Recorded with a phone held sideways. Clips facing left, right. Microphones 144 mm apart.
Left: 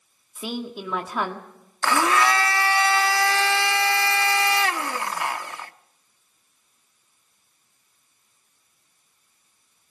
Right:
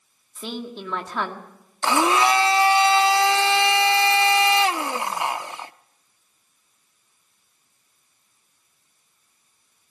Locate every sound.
0.3 s a woman speaking: 5° left (ahead or behind), 1.7 m
1.8 s a blender: 20° right (ahead or behind), 0.7 m